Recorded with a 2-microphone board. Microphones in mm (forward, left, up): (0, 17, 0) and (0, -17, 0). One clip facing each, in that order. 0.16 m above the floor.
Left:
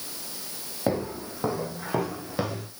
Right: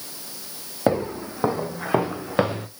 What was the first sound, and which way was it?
Footsteps, 30° right (ahead or behind).